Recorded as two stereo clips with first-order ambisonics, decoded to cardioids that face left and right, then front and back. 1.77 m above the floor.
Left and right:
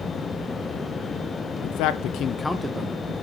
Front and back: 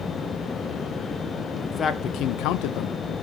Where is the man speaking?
75° left, 1.1 m; by 3.1 s 40° right, 1.0 m.